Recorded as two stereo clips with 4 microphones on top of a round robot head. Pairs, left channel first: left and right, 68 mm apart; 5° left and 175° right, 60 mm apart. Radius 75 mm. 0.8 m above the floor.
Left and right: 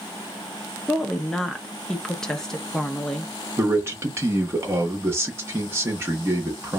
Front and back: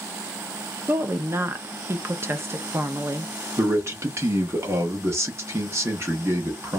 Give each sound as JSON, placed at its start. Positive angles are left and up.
{"t": 0.9, "sound": "a woman speaking", "azimuth_deg": 165, "distance_m": 0.7}
{"t": 3.6, "sound": "a man speaking", "azimuth_deg": -140, "distance_m": 1.3}